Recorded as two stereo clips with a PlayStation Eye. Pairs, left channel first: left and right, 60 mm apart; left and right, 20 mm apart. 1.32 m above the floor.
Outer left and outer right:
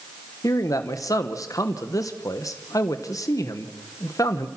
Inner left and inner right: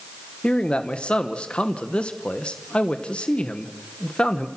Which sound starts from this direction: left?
A man speaking, at 0.4 s.